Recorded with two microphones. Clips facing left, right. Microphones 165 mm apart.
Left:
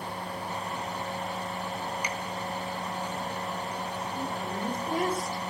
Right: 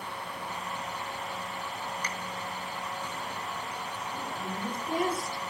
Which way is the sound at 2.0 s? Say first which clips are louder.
Left 3 dB; 10° left (ahead or behind).